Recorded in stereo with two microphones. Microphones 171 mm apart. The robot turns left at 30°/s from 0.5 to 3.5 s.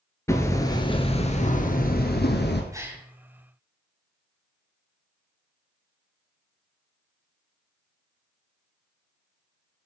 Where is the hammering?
165° left, 2 m; by 2.6 s 100° left, 2 m.